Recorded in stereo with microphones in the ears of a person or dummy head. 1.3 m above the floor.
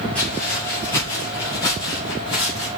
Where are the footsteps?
5° left (ahead or behind), 1.4 m; by 2.7 s 30° left (ahead or behind), 2.5 m.